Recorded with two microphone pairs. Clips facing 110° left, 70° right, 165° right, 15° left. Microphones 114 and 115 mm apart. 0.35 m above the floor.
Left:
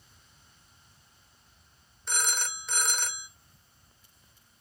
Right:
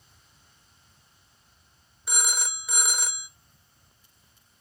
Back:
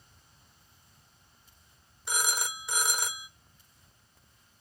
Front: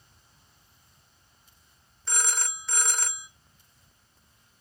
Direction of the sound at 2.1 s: 130° right.